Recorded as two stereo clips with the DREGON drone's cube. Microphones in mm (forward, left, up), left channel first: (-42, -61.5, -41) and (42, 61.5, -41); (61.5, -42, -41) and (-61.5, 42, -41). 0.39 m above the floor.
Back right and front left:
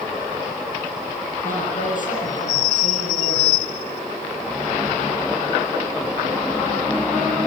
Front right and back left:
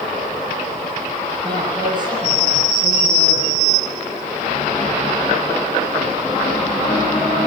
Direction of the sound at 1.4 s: 150° right.